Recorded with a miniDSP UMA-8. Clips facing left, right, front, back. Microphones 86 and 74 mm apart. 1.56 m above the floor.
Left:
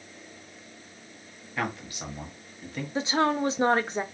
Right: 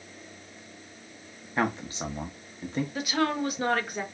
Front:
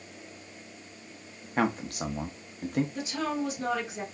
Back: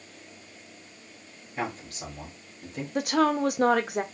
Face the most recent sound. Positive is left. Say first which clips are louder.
# left 4 dB, back 8 dB
turn(degrees=155)